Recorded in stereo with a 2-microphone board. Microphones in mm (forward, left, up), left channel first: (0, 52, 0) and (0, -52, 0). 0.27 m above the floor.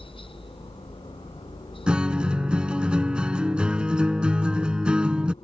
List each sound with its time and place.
0.0 s a helicopter: 55° left (ahead or behind)
1.9 s a guitar: 10° right (ahead or behind)